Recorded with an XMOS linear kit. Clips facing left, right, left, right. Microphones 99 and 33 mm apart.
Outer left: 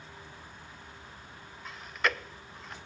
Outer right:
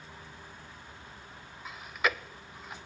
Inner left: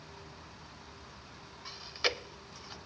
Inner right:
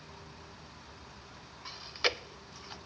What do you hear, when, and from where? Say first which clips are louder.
1.6 s chewing: even, inner right 1 dB; 5° right (ahead or behind), 0.7 m